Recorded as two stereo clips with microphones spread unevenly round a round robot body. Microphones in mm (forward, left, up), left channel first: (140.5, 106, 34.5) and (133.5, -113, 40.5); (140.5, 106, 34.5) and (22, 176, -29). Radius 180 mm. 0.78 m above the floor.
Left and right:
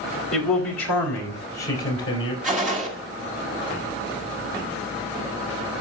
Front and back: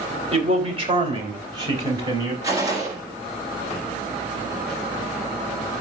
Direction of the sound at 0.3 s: 110° left.